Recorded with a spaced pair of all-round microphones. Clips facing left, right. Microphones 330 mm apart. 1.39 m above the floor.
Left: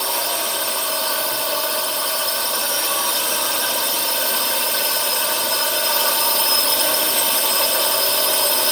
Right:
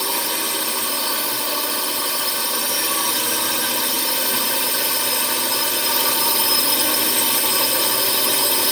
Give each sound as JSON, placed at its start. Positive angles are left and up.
{"t": 0.0, "sound": "a drone", "side_deg": -30}